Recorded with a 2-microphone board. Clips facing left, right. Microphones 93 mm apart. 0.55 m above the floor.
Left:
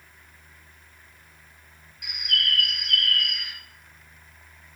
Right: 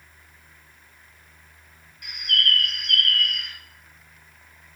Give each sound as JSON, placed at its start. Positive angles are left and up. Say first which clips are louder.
{"t": 2.0, "sound": "a bird", "louder": "right 3 dB", "side_deg": 5, "distance_m": 0.9}